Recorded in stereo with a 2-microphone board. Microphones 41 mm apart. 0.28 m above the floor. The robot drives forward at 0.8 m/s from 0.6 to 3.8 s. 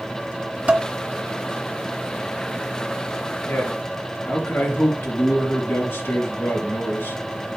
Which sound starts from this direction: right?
Dishes clattering, at 0.7 s.